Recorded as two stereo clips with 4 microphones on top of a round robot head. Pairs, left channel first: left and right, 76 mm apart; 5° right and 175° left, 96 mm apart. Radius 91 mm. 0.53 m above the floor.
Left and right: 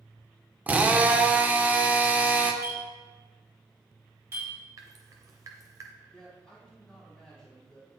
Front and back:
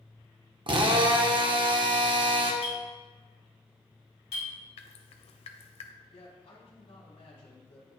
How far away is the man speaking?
About 4 m.